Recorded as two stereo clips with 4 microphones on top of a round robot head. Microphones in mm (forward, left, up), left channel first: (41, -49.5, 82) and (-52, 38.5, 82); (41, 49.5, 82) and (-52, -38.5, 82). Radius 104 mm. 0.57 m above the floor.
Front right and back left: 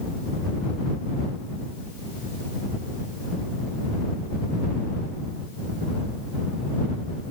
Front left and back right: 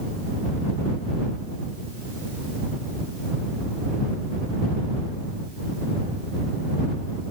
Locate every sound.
Only background noise.